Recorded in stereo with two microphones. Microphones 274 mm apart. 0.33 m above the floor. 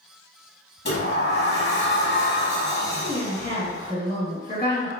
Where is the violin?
I don't hear a violin.